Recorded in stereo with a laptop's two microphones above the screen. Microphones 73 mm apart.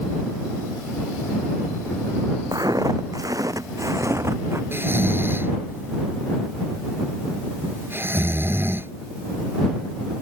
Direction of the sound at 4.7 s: 35° right (ahead or behind).